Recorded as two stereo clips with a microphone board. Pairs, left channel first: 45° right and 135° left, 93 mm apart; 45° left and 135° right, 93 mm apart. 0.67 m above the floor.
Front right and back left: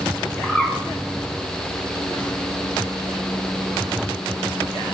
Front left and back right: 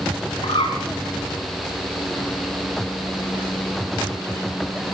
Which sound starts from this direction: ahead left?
A bird, at 0.4 s.